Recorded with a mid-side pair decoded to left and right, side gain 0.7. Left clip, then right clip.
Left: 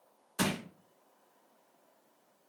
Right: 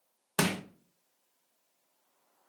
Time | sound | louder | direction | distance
0.4 | crushing | right 3 dB | 65° right | 0.8 m